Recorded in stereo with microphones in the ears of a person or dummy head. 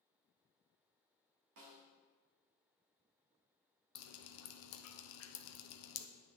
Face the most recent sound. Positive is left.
turn(degrees=80)